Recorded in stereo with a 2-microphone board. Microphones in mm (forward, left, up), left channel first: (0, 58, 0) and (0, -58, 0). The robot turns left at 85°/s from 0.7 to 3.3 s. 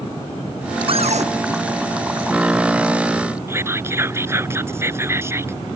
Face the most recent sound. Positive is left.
turn(degrees=-25)  # may be behind; listen again after turning